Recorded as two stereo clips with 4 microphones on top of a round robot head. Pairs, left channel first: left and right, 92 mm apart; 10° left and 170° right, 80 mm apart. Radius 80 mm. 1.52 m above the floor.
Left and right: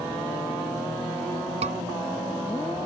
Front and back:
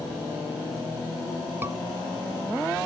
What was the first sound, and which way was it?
A scream, 100° right.